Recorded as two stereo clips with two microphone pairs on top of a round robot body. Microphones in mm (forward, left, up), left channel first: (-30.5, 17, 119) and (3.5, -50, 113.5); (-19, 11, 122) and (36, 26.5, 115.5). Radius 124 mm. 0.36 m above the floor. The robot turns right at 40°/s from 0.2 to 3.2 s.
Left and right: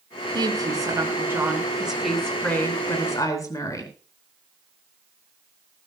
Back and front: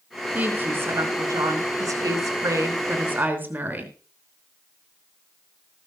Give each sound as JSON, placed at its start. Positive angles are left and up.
{"t": 0.3, "sound": "a woman speaking", "azimuth_deg": -45, "distance_m": 5.0}